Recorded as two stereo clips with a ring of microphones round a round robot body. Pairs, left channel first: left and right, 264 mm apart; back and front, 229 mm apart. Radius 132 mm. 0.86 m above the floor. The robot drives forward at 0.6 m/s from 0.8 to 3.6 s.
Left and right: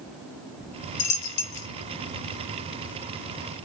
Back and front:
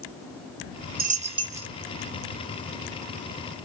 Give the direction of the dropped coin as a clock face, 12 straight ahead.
10 o'clock.